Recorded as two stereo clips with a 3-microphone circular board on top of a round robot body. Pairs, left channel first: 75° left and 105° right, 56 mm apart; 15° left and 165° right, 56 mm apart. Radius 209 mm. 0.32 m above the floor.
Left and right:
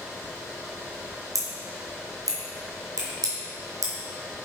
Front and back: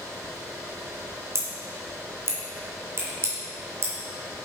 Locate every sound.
1.4 s scissors: 125° right, 2 m